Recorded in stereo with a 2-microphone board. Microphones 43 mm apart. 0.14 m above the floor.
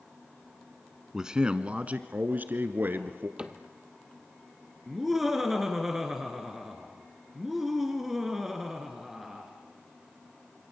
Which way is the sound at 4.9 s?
5° right (ahead or behind).